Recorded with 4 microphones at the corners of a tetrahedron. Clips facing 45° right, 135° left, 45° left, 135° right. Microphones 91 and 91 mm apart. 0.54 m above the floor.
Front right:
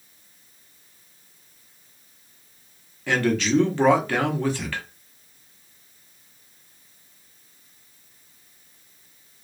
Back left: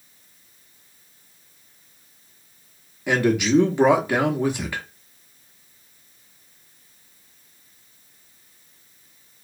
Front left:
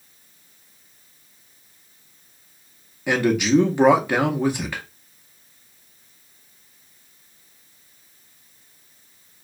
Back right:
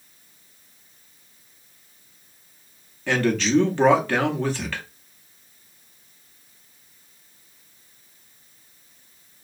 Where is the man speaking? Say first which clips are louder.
Back left 2 dB, front left 3 dB; 100° left, 0.6 m.